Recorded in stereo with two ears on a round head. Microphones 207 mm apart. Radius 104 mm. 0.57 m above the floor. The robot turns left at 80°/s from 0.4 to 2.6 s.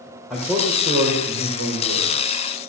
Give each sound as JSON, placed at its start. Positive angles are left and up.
{"t": 0.3, "sound": "a man speaking", "azimuth_deg": 0, "distance_m": 2.0}